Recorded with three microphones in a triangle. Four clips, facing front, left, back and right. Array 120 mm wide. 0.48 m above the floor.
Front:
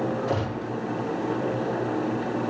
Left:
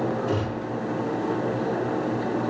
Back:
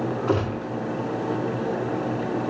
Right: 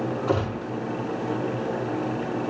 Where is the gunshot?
140° right, 4.5 m.